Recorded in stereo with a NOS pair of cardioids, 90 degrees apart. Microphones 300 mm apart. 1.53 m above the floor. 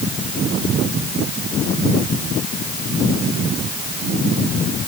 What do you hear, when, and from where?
Only background noise.